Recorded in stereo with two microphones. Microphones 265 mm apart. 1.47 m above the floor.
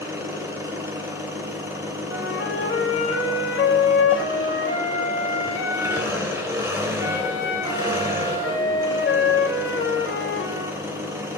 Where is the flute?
50° left (ahead or behind), 2.5 m.